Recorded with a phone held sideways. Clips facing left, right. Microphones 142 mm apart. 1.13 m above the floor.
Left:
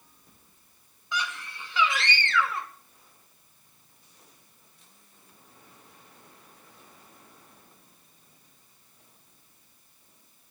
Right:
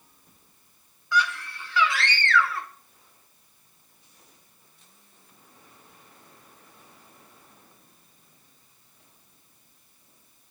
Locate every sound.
1.1 s a scream: 20° left (ahead or behind), 1.8 m